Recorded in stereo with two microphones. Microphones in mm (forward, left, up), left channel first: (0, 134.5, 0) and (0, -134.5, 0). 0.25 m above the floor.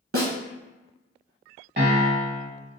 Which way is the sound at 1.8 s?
40° right (ahead or behind).